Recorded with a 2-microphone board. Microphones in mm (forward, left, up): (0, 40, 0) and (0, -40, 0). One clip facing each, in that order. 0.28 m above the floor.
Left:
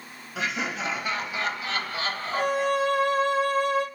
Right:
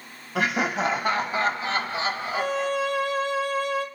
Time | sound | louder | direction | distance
0.3 | laughter | right 6 dB | 60° right (ahead or behind) | 1.6 m
2.3 | a violin | left 3 dB | 45° left (ahead or behind) | 1.6 m